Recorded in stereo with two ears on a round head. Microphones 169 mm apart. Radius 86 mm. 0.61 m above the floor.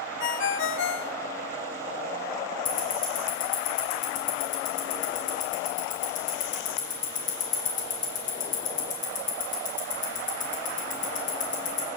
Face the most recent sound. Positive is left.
turn(degrees=45)  # may be behind; listen again after turning